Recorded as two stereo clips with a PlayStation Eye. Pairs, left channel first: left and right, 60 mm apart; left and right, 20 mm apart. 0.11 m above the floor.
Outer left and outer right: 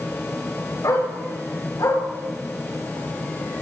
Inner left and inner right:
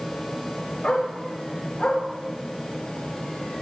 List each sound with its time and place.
0.8 s a dog barking: 85° left, 8 m; by 2.0 s 90° left, 9 m